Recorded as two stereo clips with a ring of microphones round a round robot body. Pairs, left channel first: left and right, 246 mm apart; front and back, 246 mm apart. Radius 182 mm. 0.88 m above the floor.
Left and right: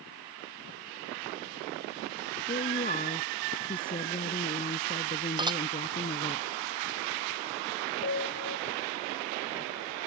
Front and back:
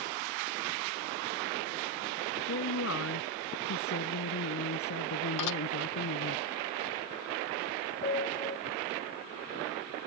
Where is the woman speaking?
30° left.